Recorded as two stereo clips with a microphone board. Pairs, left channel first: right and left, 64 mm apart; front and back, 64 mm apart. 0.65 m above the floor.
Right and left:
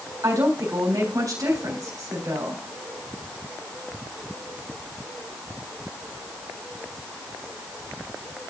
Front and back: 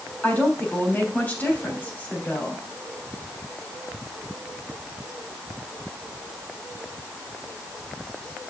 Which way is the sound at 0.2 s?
65° left.